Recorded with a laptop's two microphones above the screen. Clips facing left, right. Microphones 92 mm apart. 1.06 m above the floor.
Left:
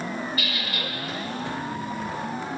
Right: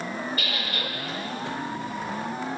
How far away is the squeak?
About 0.9 m.